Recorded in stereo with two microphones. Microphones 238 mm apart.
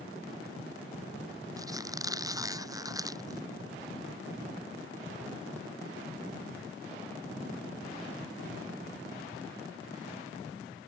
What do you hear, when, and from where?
1.6 s a squeak: 15° right (ahead or behind)